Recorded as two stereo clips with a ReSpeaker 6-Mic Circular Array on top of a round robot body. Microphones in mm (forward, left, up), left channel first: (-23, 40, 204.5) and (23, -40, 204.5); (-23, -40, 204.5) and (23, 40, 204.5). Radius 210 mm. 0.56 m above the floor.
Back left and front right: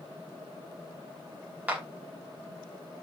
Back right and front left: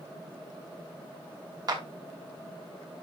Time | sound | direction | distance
1.7 | a clap | 15° left | 3 m